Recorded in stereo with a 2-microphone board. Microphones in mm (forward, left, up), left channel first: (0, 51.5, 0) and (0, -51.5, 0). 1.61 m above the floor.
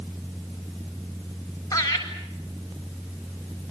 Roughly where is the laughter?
Left.